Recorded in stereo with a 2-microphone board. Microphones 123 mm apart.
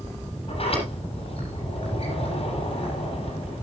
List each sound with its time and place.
0.5 s a sliding door: 50° left (ahead or behind), 7.5 m